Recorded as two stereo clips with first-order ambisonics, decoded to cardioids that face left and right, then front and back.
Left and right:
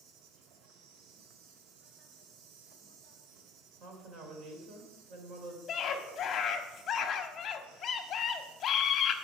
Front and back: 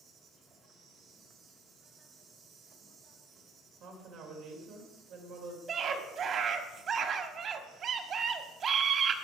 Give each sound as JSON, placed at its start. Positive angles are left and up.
{"t": 0.0, "sound": "an insect", "azimuth_deg": -120, "distance_m": 1.5}
{"t": 3.8, "sound": "a woman speaking", "azimuth_deg": -140, "distance_m": 2.5}
{"t": 5.7, "sound": "a scream", "azimuth_deg": 130, "distance_m": 1.1}